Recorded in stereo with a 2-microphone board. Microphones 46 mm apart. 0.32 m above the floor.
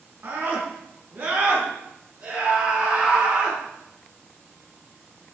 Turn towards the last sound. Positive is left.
turn(degrees=-20)  # may be behind; listen again after turning